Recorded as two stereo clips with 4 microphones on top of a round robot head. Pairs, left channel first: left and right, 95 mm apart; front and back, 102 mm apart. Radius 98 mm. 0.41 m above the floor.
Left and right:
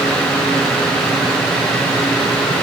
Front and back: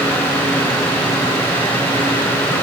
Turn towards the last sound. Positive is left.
No sound to turn to.